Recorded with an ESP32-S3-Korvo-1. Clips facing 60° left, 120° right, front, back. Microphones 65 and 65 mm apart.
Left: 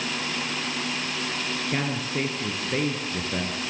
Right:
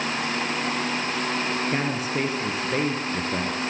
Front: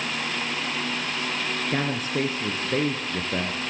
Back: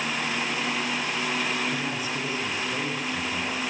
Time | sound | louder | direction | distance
1.7 | a man speaking | right 2 dB, front 3 dB | 40° right | 2.5 m